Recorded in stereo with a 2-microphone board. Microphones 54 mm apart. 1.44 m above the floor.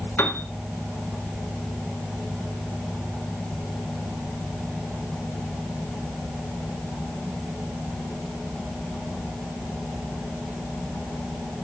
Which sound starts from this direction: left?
A piano, at 0.2 s.